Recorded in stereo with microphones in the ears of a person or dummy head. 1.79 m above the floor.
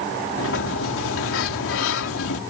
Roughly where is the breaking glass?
I don't hear breaking glass.